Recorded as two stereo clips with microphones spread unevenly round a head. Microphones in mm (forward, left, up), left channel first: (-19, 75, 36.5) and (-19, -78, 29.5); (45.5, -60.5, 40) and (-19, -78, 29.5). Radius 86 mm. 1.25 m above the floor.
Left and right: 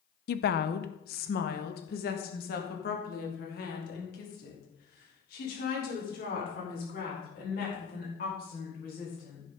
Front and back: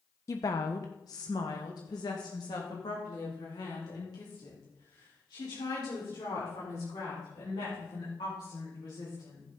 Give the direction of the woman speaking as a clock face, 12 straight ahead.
10 o'clock.